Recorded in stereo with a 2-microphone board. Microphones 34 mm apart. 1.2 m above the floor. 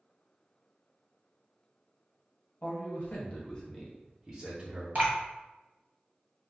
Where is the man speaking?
60° left (ahead or behind), 0.9 m; by 4.8 s 30° right (ahead or behind), 1.1 m.